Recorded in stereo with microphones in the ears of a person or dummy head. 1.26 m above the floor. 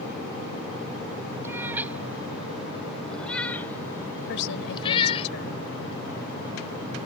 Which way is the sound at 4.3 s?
70° left (ahead or behind).